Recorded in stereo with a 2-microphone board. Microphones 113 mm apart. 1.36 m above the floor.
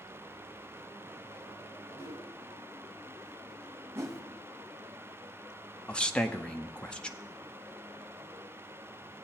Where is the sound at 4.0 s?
25° right (ahead or behind), 0.8 m.